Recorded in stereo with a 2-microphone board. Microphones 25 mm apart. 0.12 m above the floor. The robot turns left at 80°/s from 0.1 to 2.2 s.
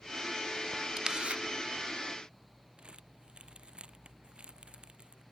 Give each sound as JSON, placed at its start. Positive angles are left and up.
{"t": 1.0, "sound": "a camera shutter", "azimuth_deg": -30}
{"t": 2.8, "sound": "crumpling", "side_deg": -40}